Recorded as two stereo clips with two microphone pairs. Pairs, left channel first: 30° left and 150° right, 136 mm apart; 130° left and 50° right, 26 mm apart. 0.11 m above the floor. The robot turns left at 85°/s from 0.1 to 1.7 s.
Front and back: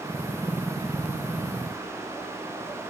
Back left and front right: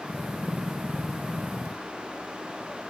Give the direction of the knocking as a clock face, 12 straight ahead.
No knocking in this recording.